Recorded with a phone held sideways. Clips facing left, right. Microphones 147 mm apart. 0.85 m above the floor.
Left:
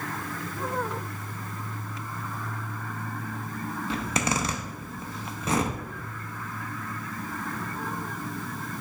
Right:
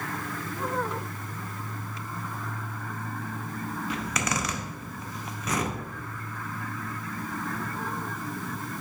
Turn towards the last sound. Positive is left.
turn(degrees=30)  # may be behind; listen again after turning